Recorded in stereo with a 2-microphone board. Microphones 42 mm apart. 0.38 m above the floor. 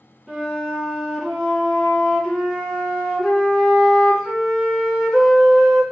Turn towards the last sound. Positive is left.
turn(degrees=5)  # may be behind; listen again after turning